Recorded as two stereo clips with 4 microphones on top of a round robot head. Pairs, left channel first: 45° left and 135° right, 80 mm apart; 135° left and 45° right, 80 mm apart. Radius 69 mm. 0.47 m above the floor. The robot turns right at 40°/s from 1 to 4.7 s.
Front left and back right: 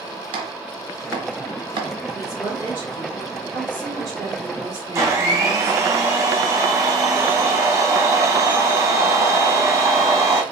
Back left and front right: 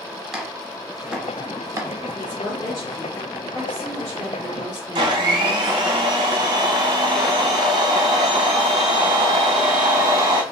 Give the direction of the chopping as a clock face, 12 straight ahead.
4 o'clock.